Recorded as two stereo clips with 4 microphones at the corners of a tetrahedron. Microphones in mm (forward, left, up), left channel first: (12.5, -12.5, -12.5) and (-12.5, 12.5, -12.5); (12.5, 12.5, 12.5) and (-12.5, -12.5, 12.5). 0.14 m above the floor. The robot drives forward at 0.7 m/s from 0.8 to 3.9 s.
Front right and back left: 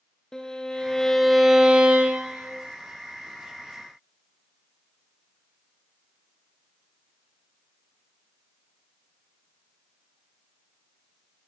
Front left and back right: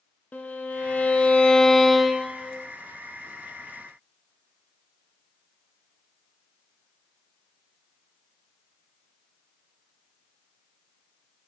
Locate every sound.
0.3 s a violin: 25° left, 0.8 m; by 2.5 s 160° left, 0.9 m